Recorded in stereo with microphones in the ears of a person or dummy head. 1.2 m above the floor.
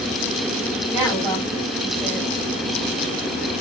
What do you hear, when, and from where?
0.9 s a woman speaking: 10° right (ahead or behind), 6.5 m